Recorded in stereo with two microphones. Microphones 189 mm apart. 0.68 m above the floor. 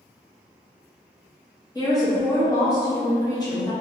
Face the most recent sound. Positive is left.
turn(degrees=20)  # may be behind; listen again after turning